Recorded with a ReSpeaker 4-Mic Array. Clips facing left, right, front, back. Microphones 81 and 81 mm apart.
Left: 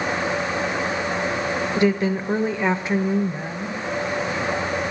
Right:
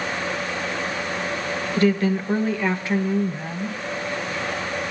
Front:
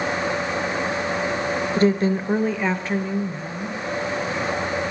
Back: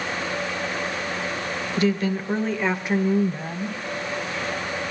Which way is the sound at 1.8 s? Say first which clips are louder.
Right 1 dB, front 3 dB; 25° left.